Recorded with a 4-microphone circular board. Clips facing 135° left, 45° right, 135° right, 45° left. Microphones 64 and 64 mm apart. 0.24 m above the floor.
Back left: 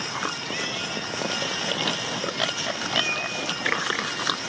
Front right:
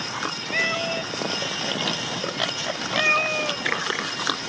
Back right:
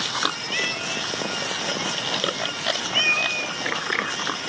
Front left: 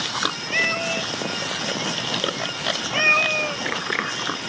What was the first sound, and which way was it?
A cat meowing, 5° right.